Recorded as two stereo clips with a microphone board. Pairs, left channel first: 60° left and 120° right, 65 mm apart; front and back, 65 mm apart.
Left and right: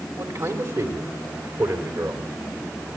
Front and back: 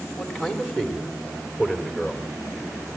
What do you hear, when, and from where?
0.2 s a man speaking: 100° right, 3 m; by 2.2 s 115° right, 3.5 m